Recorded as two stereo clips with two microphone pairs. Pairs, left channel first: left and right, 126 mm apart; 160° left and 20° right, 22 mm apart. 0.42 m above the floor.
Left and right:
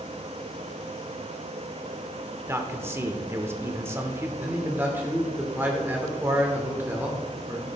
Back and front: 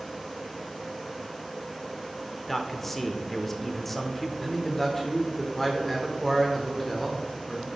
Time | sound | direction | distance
2.5 | a man speaking | 130° right | 0.8 m
4.4 | a man speaking | 140° right | 1.3 m